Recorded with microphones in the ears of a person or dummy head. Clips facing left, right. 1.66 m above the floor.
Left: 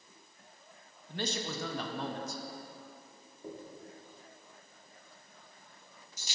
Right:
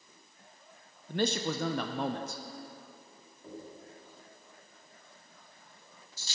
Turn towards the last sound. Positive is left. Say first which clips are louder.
# left 1 dB
turn(degrees=15)  # may be behind; listen again after turning